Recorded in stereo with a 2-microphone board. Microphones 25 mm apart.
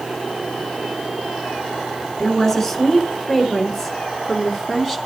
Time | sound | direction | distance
2.2 | a woman speaking | 10° left (ahead or behind) | 5 m